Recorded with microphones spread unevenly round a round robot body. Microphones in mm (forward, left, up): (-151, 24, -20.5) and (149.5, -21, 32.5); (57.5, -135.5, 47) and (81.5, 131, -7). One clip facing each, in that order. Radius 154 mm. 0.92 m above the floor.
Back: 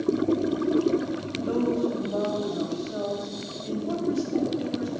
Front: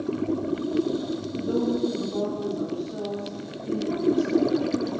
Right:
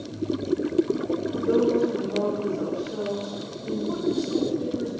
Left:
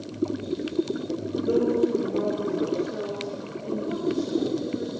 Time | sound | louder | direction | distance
1.3 | a woman speaking | even, right 1 dB | 160° left | 5 m